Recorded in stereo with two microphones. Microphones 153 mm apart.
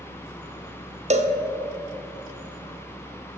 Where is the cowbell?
45° right (ahead or behind), 0.6 m.